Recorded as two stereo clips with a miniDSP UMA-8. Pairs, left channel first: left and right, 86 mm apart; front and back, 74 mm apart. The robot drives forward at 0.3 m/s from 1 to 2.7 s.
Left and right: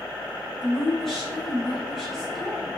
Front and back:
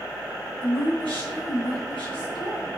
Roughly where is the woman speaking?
Ahead.